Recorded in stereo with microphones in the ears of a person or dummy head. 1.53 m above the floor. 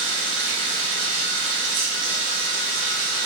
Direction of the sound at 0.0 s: 65° right (ahead or behind).